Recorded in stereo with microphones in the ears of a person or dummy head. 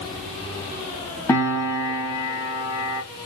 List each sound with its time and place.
1.3 s a piano: 15° left (ahead or behind), 1.6 m